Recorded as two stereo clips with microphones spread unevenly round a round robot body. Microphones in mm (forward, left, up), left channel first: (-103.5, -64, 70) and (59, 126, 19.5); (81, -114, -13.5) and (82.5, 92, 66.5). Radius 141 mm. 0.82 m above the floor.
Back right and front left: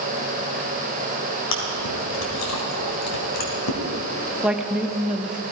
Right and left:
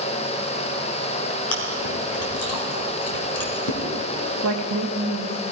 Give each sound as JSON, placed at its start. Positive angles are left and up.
{"t": 1.5, "sound": "chewing", "azimuth_deg": -100, "distance_m": 2.5}
{"t": 4.4, "sound": "a woman speaking", "azimuth_deg": 135, "distance_m": 1.0}